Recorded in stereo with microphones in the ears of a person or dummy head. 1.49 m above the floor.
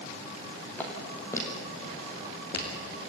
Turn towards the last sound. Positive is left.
turn(degrees=35)  # may be behind; listen again after turning